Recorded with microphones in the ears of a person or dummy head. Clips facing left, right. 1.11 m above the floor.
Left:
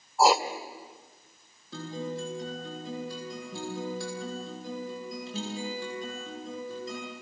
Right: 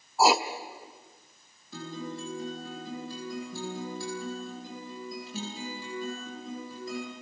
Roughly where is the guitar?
Left.